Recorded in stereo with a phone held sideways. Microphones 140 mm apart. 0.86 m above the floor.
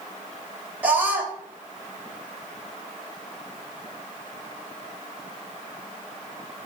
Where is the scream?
10° right (ahead or behind), 3.5 m.